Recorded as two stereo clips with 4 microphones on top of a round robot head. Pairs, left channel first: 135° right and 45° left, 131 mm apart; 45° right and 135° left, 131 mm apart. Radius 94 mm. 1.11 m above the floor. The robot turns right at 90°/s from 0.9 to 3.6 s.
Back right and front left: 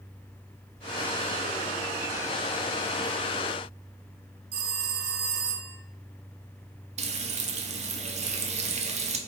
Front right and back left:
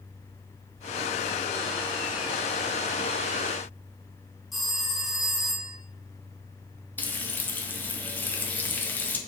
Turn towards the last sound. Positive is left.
turn(degrees=30)